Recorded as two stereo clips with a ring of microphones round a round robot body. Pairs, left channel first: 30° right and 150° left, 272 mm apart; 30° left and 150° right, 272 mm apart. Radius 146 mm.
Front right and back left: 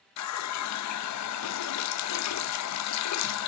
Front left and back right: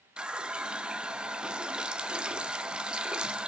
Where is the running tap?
65° right, 0.5 m.